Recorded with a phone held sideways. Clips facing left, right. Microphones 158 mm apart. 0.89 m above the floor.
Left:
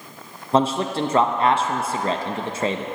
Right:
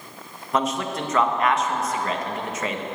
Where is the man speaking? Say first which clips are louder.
Left 5 dB; 30° left (ahead or behind), 0.5 m.